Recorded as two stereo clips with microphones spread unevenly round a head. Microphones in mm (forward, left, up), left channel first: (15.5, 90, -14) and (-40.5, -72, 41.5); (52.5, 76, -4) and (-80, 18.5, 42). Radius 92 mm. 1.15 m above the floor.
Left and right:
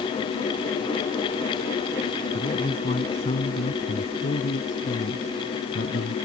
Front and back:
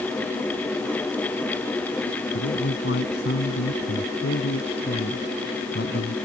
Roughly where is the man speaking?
Ahead.